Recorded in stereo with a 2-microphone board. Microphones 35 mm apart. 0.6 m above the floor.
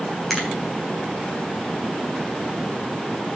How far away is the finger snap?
About 3.5 m.